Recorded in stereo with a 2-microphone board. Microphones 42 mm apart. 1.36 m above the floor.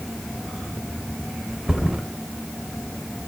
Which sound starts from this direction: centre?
A thud, at 1.7 s.